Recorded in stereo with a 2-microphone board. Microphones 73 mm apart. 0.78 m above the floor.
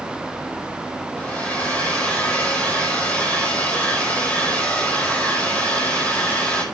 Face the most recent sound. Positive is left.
turn(degrees=20)  # may be behind; listen again after turning